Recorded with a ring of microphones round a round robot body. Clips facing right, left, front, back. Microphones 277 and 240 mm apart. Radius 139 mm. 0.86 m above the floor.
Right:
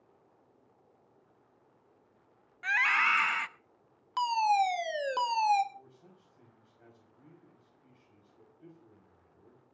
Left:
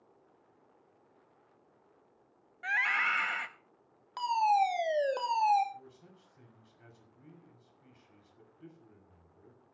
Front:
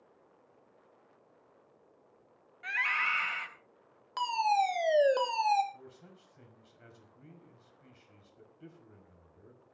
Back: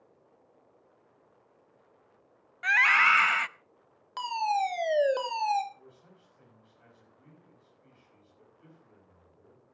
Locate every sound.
2.6 s a scream: 160° right, 0.6 m
4.2 s a fire alarm: 85° right, 1.5 m
5.7 s a man speaking: 25° left, 5.5 m